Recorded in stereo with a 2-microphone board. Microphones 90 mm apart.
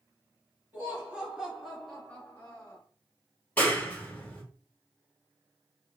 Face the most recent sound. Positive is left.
turn(degrees=20)  # may be behind; listen again after turning